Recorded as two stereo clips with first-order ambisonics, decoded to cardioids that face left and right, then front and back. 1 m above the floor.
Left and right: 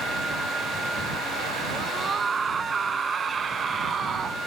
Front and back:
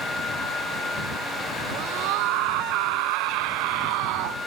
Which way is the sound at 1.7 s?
160° right.